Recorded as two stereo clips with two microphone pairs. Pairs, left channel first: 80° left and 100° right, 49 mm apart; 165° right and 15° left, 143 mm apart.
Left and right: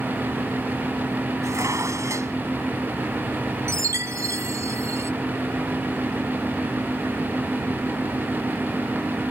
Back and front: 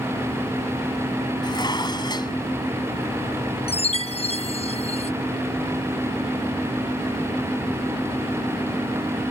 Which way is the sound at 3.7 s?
120° right.